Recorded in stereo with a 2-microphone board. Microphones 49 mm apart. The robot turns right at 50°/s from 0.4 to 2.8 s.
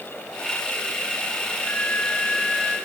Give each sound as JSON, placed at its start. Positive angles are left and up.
{"t": 1.6, "sound": "a flute", "azimuth_deg": 145, "distance_m": 3.5}